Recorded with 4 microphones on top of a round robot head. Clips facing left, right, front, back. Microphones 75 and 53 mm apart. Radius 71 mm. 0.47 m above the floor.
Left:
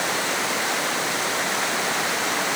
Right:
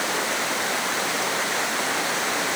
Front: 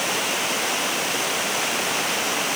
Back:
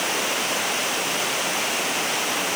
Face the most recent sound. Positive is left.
No sound to turn to.